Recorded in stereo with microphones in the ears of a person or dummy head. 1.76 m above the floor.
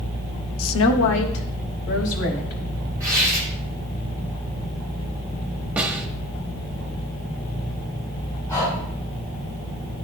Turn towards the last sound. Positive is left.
turn(degrees=15)  # may be behind; listen again after turning